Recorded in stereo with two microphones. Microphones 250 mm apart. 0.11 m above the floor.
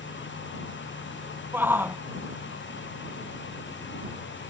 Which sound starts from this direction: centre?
A shout, at 1.5 s.